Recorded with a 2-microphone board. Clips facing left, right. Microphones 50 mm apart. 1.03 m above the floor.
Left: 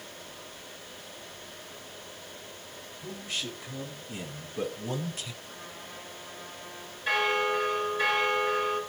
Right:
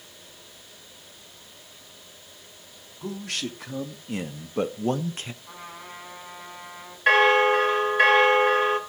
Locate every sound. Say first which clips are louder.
3.0 s a man speaking: right 5 dB; 75° right (ahead or behind), 3.5 m; by 5.3 s 35° right (ahead or behind), 0.9 m
5.4 s a trumpet: right 3 dB; 55° right (ahead or behind), 8 m
7.1 s a bell: right 9 dB; 55° right (ahead or behind), 1.7 m